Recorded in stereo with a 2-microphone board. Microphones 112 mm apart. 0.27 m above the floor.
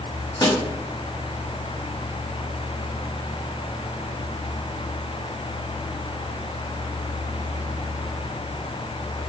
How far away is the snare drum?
About 0.9 m.